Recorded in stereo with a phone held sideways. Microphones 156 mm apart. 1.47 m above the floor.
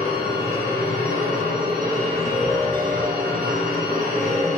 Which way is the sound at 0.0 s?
75° right (ahead or behind).